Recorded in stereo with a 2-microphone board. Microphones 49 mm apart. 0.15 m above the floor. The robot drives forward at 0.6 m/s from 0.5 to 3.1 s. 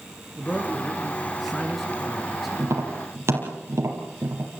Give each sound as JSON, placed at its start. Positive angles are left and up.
{"t": 0.3, "sound": "a man speaking", "side_deg": 0, "distance_m": 2.5}
{"t": 2.6, "sound": "tapping", "side_deg": -60, "distance_m": 5.0}